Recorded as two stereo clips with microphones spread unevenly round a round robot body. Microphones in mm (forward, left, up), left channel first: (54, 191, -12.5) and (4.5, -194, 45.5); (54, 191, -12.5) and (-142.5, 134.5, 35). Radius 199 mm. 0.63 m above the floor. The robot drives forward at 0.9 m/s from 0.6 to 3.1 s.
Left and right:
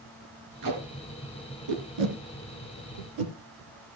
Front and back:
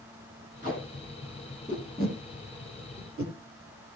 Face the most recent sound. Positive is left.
turn(degrees=-100)